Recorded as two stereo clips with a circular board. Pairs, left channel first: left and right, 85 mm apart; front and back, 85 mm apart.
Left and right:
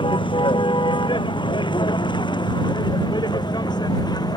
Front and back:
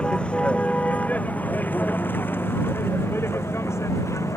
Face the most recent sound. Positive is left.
turn(degrees=55)